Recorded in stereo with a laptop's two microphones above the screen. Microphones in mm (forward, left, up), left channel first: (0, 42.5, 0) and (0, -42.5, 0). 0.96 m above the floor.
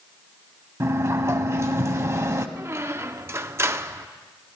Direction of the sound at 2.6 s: 30° right (ahead or behind).